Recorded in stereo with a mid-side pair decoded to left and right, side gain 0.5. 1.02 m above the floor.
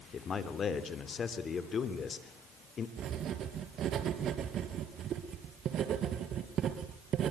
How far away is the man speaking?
About 2.5 m.